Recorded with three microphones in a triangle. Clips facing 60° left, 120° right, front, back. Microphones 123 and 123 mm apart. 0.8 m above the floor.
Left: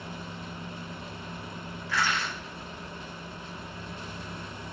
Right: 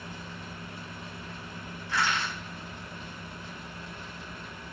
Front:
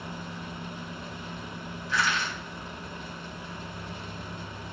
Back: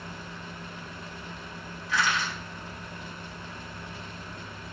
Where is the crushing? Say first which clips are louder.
Even, back 1 dB; 175° left, 1.5 m.